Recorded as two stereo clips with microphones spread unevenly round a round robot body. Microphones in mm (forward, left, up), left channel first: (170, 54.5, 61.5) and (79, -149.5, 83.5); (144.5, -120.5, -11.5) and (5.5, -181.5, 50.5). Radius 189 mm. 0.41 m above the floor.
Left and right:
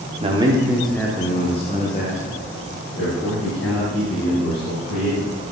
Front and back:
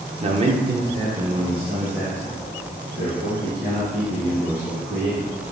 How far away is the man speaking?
About 1.2 m.